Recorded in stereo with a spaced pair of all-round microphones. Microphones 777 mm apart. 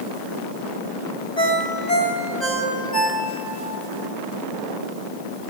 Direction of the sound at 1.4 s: 55° left (ahead or behind).